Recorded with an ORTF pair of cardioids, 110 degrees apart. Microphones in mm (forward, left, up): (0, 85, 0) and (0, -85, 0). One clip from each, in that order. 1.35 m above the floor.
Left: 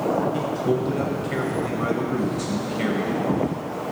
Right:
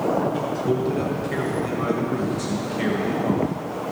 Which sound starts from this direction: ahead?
A man speaking, at 0.3 s.